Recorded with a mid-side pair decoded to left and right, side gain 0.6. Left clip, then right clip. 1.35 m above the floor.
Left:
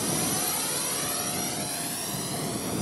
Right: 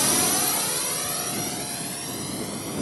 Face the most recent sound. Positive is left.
turn(degrees=5)